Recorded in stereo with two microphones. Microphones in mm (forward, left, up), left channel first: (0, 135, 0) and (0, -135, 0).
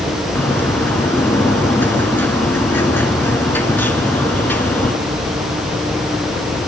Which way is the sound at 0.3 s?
5° left (ahead or behind).